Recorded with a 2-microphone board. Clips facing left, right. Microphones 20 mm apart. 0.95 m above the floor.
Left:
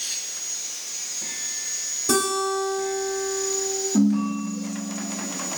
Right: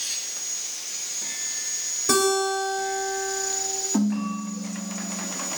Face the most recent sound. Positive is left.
turn(degrees=-55)  # may be behind; listen again after turning